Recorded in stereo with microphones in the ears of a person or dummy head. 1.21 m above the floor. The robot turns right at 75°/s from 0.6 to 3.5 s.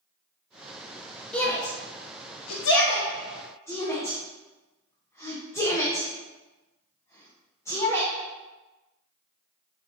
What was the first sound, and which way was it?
A shout, 5° left (ahead or behind).